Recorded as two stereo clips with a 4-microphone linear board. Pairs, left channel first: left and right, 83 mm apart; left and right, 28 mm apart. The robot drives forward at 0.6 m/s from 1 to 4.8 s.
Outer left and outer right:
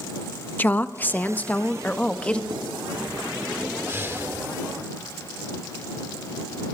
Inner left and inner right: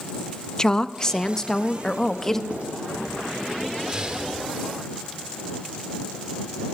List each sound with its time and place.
0.6 s a woman speaking: 20° left (ahead or behind), 0.9 m; by 2.4 s 15° left (ahead or behind), 1.4 m
2.5 s writing: 50° right (ahead or behind), 4.5 m; by 2.6 s 55° right (ahead or behind), 4.5 m
3.9 s breathing: 30° right (ahead or behind), 3 m; by 4.3 s 25° right (ahead or behind), 3.5 m